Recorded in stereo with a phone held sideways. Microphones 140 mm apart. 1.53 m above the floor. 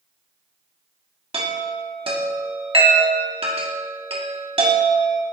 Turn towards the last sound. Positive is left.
turn(degrees=-45)  # may be behind; listen again after turning